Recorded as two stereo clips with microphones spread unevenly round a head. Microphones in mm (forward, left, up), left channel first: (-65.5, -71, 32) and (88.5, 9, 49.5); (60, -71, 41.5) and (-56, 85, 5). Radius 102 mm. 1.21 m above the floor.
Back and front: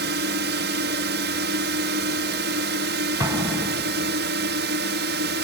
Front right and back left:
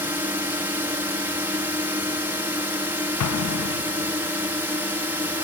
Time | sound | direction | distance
0.0 | a drone | 50° left | ?
3.2 | an explosion | 45° right | ?